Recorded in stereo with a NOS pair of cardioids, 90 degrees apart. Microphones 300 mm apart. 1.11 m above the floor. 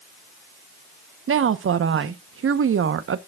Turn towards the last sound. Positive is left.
turn(degrees=-45)